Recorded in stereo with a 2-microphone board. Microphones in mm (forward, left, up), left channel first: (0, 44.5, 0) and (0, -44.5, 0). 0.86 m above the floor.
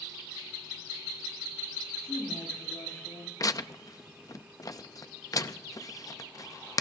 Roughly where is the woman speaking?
Left.